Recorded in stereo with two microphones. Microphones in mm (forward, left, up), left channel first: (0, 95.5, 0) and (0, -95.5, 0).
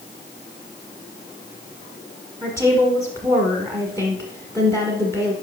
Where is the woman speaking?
15° right (ahead or behind), 1.3 m.